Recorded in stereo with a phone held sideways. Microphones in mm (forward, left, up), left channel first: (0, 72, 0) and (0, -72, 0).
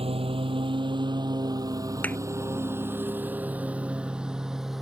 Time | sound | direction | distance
0.0 | a lawn mower | 40° right (ahead or behind) | ?
2.0 | a thud | 10° left (ahead or behind) | ?